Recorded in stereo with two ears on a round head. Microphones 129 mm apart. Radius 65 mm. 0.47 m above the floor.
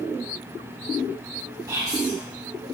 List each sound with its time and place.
1.7 s whispering: 25° right (ahead or behind), 0.8 m